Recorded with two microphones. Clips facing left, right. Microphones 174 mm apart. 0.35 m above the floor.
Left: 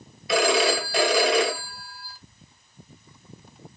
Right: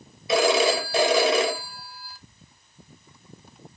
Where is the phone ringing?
25° right (ahead or behind), 1.2 m.